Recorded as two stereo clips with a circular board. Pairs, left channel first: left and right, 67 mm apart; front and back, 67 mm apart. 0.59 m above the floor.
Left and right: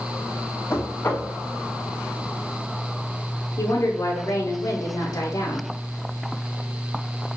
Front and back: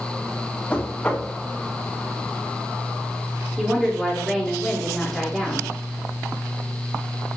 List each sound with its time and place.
0.7 s knocking: 65° left, 1.1 m
3.6 s a woman speaking: 90° left, 1.2 m